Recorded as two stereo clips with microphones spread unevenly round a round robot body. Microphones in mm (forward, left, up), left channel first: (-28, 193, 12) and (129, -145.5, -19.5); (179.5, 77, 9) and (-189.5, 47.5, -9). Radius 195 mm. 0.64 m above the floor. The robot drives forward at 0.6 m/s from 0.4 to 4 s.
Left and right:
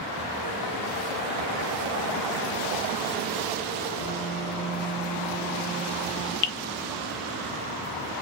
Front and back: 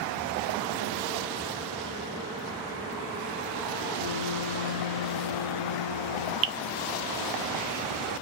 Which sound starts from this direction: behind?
A piano, at 4.0 s.